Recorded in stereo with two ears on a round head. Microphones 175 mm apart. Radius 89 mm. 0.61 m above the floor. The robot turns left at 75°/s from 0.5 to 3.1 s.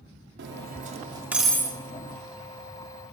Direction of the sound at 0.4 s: 60° right (ahead or behind).